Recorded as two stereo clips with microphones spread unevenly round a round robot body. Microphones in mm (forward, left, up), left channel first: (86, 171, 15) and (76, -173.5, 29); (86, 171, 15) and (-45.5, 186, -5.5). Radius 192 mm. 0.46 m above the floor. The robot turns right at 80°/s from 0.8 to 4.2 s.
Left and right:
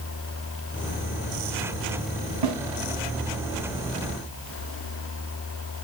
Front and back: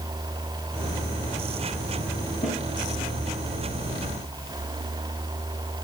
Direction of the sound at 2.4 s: 80° right.